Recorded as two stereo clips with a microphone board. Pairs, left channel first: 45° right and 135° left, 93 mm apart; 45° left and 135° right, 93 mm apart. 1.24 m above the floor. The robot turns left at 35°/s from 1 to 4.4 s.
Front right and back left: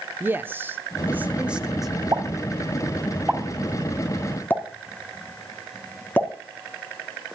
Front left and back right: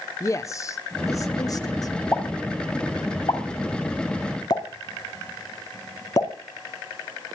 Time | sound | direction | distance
0.2 | a man speaking | 75° left | 0.7 m
2.1 | a pop | 100° left | 1.6 m